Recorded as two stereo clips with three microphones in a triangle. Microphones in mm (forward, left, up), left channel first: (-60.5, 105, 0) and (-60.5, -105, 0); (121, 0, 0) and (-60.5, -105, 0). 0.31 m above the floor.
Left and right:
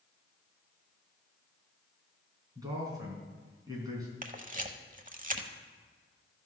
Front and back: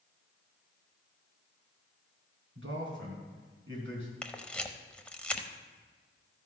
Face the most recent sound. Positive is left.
turn(degrees=-55)